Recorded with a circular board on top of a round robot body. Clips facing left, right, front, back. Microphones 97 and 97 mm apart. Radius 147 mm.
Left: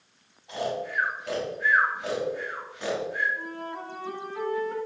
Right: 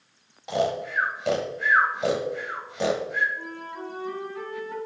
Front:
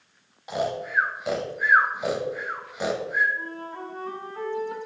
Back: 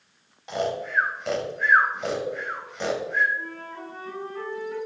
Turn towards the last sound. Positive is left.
turn(degrees=45)